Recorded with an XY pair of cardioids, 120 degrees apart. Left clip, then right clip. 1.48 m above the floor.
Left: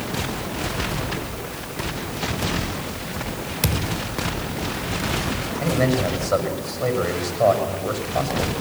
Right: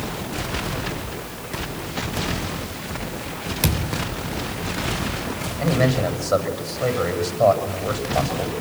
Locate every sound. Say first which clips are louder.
3.6 s a thud: even; 10° right, 2.5 m
5.6 s a man speaking: right 1 dB; 10° right, 6.5 m